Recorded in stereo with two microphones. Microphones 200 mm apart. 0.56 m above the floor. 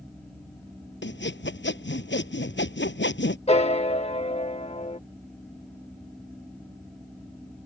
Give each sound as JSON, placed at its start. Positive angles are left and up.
{"t": 1.0, "sound": "sawing", "side_deg": 70}
{"t": 3.5, "sound": "a piano", "side_deg": 35}